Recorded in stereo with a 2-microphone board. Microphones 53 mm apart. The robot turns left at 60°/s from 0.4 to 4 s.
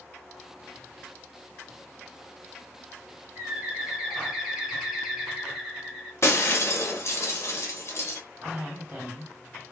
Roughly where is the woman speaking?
Right.